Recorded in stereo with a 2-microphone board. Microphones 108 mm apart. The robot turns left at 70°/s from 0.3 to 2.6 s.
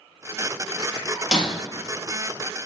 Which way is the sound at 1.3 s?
5° right (ahead or behind).